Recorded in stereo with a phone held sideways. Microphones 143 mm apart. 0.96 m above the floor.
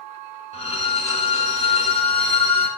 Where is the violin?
50° left (ahead or behind), 1.5 m.